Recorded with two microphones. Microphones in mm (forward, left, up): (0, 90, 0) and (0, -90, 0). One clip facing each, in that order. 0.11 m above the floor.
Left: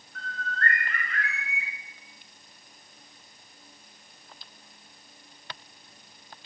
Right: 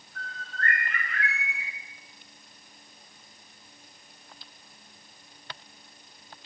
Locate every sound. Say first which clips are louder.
0.1 s a bird: left 4 dB; 5° right (ahead or behind), 3 m